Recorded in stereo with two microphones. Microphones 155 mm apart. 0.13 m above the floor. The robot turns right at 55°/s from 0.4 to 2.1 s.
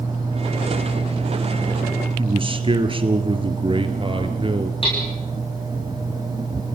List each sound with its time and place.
2.2 s a man speaking: 35° right (ahead or behind), 2.5 m
4.8 s hammering: 35° left (ahead or behind), 8 m